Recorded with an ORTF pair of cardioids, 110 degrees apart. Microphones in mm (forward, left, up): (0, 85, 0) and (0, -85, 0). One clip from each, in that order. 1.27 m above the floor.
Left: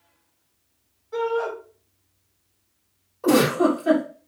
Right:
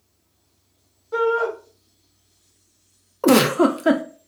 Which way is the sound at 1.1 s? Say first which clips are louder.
Right 4 dB; 45° right.